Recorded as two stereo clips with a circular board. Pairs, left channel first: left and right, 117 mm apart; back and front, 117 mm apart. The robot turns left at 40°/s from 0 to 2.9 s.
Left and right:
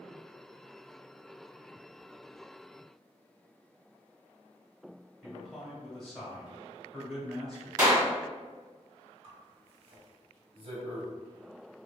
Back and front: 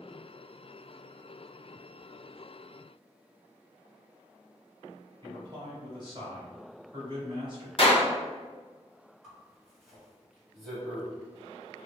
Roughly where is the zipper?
Right.